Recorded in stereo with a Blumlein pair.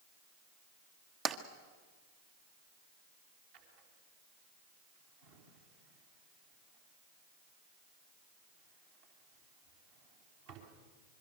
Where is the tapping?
25° right, 1.3 m.